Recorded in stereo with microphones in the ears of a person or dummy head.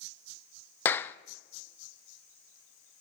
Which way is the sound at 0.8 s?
15° left (ahead or behind).